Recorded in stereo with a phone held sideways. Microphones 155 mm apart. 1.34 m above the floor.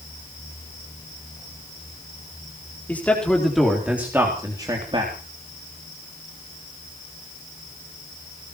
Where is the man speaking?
10° left (ahead or behind), 4 m; by 5.1 s 40° right (ahead or behind), 3.5 m.